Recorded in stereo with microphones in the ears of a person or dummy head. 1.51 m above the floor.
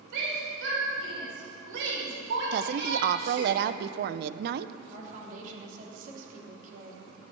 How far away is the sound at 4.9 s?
About 3.5 m.